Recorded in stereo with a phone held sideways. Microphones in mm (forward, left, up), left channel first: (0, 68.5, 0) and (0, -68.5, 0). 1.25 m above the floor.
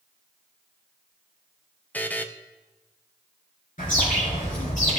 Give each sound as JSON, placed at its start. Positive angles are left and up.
{"t": 1.9, "sound": "a buzzer", "side_deg": 15, "distance_m": 0.6}
{"t": 3.8, "sound": "a bird", "side_deg": 70, "distance_m": 4.5}